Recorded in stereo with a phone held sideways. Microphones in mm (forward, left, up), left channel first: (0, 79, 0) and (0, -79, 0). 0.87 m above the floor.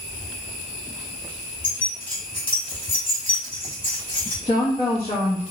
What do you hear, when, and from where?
1.6 s keys jangling: 35° left (ahead or behind), 1.5 m
4.5 s a woman speaking: 45° left (ahead or behind), 0.7 m